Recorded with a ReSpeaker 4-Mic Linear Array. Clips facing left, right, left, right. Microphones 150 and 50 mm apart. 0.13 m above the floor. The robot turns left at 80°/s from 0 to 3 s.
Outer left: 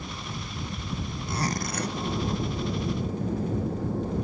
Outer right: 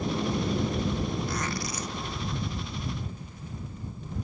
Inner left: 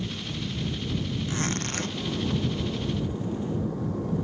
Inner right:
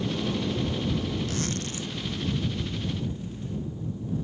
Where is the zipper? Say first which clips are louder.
Outer left 2 dB, inner left 2 dB; 155° left; by 2.0 s 100° left.